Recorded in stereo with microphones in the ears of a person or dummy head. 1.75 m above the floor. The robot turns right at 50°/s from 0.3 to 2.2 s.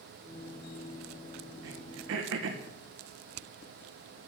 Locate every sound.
1.6 s throat clearing: 65° right (ahead or behind), 1.4 m; by 2.6 s 70° right (ahead or behind), 1.4 m